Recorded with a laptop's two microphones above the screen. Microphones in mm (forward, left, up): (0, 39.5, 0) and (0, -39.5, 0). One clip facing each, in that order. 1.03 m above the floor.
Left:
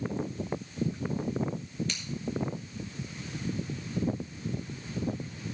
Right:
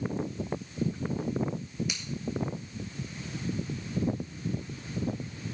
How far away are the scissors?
About 1.5 m.